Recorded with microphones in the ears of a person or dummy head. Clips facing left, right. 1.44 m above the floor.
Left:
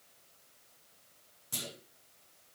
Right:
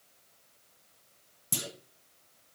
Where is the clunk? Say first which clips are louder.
Right 5 dB; 65° right (ahead or behind), 1.0 m.